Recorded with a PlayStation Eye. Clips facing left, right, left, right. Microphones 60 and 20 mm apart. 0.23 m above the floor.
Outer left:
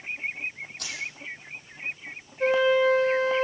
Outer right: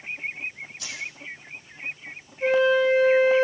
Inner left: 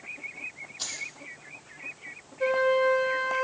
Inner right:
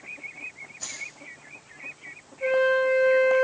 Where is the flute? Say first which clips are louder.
Outer right 1 dB, inner right 2 dB; 80° left, 8 m.